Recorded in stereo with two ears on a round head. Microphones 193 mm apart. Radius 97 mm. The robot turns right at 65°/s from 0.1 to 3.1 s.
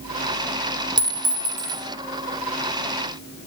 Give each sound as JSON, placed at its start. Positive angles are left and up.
{"t": 1.0, "sound": "a clink", "azimuth_deg": -160, "distance_m": 1.3}